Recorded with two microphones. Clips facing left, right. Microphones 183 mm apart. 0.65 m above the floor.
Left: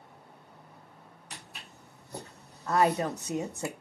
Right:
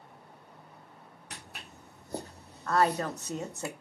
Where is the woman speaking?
15° left (ahead or behind), 0.5 m.